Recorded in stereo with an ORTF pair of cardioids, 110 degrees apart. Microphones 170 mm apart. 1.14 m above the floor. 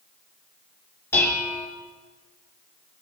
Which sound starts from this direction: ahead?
Dishes clattering, at 1.1 s.